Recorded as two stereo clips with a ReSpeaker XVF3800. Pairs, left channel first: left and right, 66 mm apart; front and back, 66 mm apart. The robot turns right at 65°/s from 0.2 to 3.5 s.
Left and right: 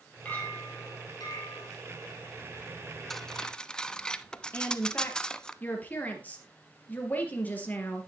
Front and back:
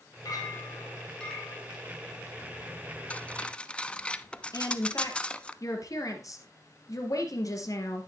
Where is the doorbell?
No doorbell in this recording.